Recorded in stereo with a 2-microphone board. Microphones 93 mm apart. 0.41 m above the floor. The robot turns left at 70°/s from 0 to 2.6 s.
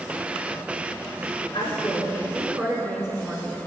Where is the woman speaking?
65° left, 4.5 m; by 3.6 s 10° right, 4.5 m.